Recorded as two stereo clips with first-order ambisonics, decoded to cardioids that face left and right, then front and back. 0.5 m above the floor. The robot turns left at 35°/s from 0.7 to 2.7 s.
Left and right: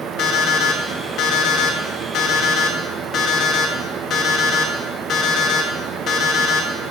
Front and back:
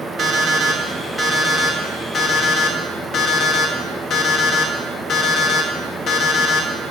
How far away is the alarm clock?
About 0.9 m.